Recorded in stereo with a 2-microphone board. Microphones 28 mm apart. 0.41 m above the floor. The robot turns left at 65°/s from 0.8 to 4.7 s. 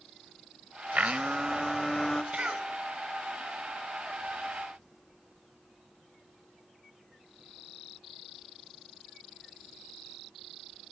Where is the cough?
55° right (ahead or behind), 1.7 m; by 2.7 s 40° right (ahead or behind), 1.7 m.